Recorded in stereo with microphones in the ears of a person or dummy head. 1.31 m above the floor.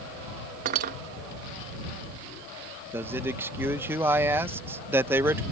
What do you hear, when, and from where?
0.7 s cutlery clinking: 50° right (ahead or behind)
2.9 s a man speaking: 10° right (ahead or behind)